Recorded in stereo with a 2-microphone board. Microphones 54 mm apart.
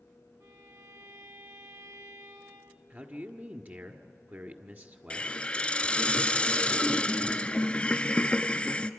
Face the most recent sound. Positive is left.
turn(degrees=20)  # may be behind; listen again after turning